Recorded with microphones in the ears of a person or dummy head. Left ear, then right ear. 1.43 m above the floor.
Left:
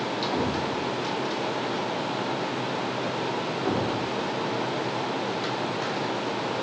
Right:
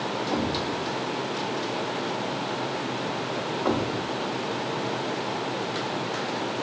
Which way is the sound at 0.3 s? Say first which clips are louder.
Even; 40° right (ahead or behind).